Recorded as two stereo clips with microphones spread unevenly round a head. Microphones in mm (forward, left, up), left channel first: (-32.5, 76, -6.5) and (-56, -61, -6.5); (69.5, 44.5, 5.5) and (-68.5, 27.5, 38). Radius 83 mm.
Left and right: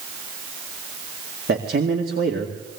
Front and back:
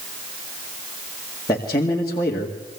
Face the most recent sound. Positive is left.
turn(degrees=-60)